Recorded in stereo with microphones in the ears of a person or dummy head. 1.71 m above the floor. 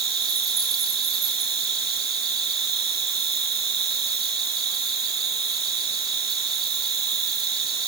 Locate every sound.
0.0 s an insect: 20° right (ahead or behind), 2.5 m